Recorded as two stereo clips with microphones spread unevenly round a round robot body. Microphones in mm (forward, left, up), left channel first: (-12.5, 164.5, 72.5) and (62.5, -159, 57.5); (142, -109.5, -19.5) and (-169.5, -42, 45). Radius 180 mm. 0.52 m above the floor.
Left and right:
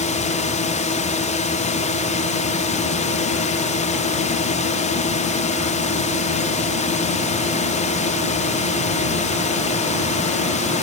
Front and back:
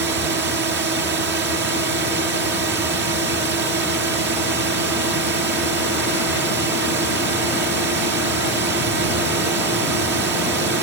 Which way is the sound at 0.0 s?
140° left.